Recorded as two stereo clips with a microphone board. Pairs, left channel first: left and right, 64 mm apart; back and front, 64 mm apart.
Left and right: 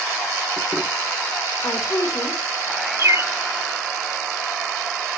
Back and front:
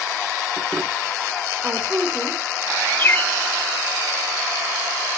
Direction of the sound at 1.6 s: 65° left.